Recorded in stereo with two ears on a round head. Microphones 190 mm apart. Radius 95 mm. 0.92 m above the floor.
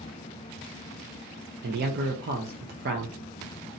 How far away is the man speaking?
About 0.6 m.